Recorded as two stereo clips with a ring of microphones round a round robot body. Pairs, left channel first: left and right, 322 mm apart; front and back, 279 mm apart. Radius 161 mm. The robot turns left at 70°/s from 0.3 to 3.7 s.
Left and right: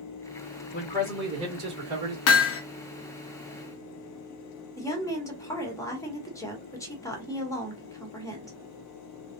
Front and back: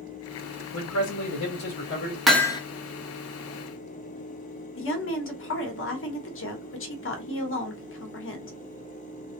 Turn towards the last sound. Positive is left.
turn(degrees=15)